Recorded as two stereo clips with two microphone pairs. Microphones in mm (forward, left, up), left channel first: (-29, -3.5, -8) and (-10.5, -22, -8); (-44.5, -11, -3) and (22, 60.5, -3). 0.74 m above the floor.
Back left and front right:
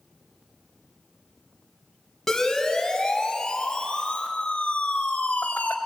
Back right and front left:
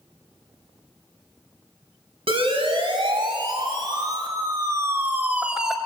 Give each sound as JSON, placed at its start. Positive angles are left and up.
{"t": 2.3, "sound": "a siren", "azimuth_deg": 60, "distance_m": 5.5}